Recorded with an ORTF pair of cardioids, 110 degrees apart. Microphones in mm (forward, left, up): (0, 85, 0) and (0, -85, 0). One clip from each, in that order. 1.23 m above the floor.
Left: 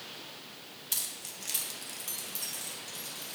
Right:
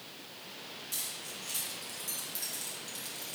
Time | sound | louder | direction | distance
0.9 | keys jangling | left 3 dB | 65° left | 0.9 m